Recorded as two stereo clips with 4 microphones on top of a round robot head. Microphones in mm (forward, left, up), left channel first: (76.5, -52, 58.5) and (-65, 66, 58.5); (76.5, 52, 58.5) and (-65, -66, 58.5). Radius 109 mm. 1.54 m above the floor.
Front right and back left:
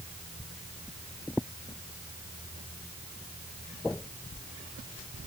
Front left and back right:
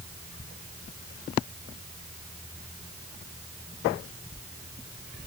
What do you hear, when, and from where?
Only background noise.